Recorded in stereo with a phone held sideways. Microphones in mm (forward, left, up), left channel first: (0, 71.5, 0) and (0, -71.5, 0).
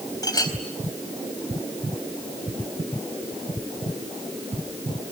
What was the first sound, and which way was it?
A clink, 25° left (ahead or behind).